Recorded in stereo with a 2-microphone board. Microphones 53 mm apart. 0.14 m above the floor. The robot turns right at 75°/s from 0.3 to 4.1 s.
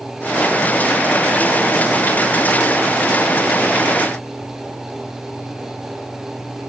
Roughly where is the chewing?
I don't hear chewing.